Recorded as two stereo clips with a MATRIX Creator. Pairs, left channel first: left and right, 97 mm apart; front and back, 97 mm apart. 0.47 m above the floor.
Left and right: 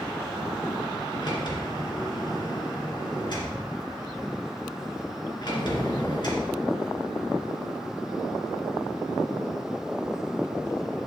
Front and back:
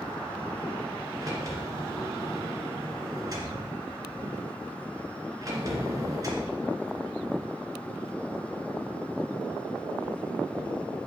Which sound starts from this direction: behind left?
A sliding door, at 1.2 s.